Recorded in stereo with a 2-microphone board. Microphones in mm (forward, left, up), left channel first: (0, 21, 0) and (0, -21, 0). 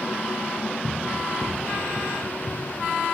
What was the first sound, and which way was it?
Running footsteps, 15° left (ahead or behind).